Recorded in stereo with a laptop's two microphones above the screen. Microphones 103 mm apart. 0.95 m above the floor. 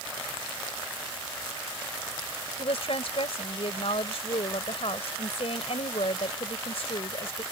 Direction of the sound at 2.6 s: 85° left.